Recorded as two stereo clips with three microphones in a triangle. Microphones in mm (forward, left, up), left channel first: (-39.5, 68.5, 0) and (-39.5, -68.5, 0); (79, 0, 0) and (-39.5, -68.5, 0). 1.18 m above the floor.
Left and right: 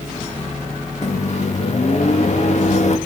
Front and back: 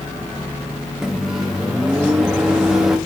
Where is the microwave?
125° left, 1.4 m.